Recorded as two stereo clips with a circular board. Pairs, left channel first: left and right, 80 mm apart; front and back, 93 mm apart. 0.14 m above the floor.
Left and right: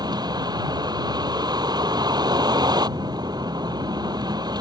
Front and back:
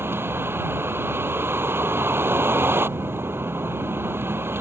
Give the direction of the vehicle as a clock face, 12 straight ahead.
4 o'clock.